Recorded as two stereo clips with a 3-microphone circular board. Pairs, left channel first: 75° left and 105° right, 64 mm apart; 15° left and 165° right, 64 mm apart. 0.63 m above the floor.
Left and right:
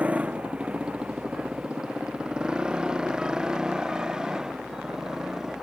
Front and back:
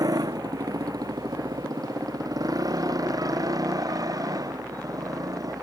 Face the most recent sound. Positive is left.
turn(degrees=175)